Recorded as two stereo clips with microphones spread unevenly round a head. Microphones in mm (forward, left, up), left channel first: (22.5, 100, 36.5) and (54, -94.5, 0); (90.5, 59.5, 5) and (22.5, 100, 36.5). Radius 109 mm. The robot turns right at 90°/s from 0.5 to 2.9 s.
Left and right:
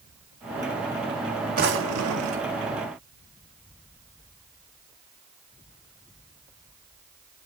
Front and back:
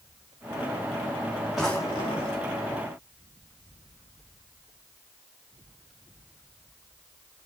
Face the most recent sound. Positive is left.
turn(degrees=-15)